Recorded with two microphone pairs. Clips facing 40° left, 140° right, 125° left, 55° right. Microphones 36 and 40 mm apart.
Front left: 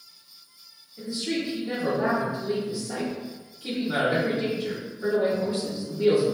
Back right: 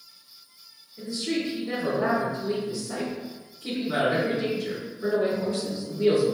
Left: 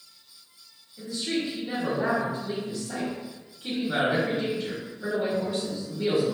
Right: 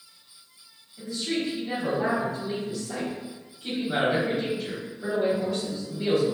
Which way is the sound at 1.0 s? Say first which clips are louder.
Back right 1 dB, even; 55° left.